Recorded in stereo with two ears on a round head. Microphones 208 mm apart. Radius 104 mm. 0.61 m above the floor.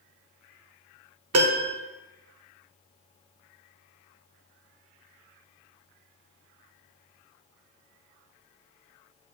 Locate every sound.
1.3 s a piano: 70° right (ahead or behind), 1.1 m